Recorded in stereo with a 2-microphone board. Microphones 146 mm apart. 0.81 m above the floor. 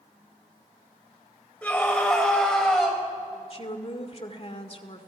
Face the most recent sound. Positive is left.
turn(degrees=45)  # may be behind; listen again after turning